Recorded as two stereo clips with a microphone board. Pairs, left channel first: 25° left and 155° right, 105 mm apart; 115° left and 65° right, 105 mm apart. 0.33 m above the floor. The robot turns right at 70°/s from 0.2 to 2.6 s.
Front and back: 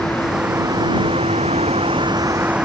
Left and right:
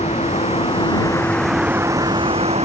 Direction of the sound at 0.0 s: 105° left.